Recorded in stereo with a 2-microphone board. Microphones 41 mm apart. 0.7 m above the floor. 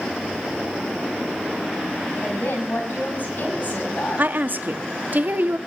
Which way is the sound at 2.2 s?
55° left (ahead or behind).